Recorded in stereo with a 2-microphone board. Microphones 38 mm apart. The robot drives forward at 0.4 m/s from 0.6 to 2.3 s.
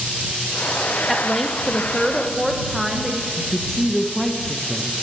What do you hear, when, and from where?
1.1 s a woman speaking: centre (ahead or behind), 0.7 m
3.4 s a woman speaking: 15° left (ahead or behind), 0.8 m